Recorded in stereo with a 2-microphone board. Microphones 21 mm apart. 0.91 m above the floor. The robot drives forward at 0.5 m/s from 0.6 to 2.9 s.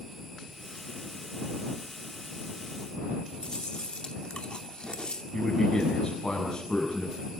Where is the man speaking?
25° left (ahead or behind), 8.5 m.